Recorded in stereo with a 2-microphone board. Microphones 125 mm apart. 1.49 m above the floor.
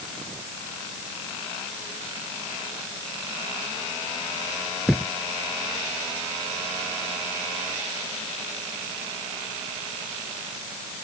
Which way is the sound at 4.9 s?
Centre (ahead or behind).